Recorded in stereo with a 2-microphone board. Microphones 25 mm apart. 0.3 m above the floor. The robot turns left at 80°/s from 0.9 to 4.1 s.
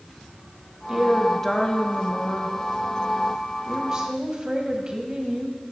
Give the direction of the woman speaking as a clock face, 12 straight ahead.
5 o'clock.